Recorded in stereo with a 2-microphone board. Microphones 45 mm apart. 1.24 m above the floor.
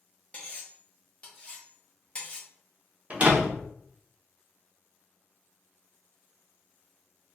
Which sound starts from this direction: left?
Cutlery clinking, at 0.3 s.